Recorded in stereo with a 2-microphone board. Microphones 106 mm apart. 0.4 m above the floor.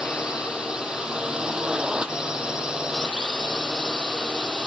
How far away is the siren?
No siren in this recording.